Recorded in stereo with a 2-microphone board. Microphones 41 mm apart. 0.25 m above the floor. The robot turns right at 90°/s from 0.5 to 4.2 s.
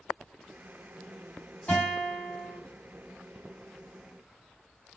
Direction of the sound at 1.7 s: 80° left.